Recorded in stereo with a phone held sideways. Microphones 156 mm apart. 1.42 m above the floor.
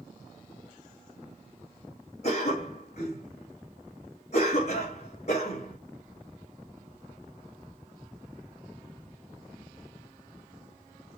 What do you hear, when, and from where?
2.2 s a cough: 45° left (ahead or behind), 2.5 m